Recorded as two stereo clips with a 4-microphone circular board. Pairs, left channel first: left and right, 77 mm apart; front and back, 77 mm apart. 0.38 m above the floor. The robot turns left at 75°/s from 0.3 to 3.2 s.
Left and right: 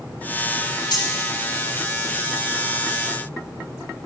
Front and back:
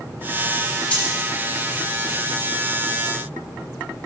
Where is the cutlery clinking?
75° left, 2 m; by 1.1 s 60° left, 2 m.